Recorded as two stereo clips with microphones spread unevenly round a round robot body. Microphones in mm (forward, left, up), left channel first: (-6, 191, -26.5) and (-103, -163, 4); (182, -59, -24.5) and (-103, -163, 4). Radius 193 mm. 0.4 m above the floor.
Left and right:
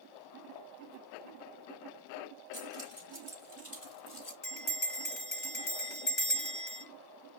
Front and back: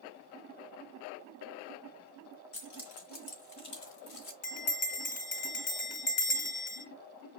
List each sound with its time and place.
2.5 s keys jangling: 10° right, 3 m; by 4.3 s 35° left, 1.0 m
4.4 s a bell: 25° left, 1.1 m